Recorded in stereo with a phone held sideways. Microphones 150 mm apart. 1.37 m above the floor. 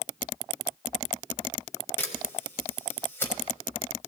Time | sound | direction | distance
2.0 | a camera shutter | 15° left (ahead or behind) | 1.5 m